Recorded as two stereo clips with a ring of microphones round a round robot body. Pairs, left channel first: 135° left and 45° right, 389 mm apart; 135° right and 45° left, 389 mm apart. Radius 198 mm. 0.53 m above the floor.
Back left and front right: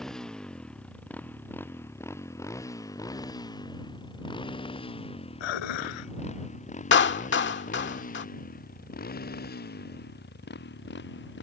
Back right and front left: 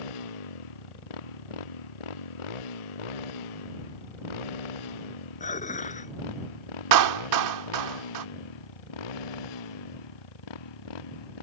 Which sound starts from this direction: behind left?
Dishes clattering, at 5.4 s.